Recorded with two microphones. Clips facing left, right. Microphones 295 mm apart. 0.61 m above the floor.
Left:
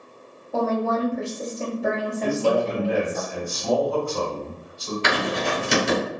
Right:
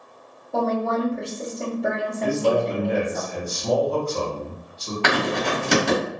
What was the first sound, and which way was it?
A woman speaking, centre (ahead or behind).